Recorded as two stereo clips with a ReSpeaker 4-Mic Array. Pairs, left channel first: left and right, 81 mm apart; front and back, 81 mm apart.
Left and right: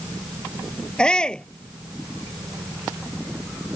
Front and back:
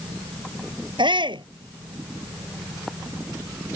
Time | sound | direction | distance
1.0 | a shout | 170° left | ?